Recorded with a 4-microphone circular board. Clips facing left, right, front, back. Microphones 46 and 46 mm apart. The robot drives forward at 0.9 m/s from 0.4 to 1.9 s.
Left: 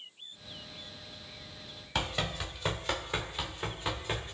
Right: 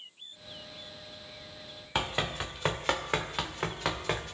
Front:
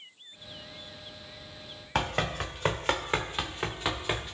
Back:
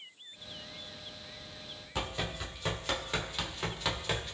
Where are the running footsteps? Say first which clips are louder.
Right 2 dB, front 7 dB; 20° right, 1.1 m; by 4.3 s 75° right, 1.6 m.